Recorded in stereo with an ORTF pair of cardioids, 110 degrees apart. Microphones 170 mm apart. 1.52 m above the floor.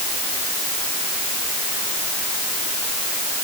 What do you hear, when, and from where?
Only background noise.